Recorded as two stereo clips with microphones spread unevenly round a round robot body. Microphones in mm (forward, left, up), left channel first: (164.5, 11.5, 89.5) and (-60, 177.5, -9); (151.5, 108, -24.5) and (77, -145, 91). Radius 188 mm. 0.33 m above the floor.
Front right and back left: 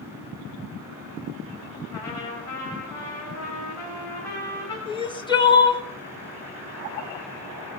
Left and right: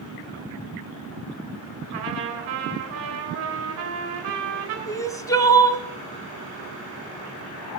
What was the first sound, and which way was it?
A trumpet, 125° right.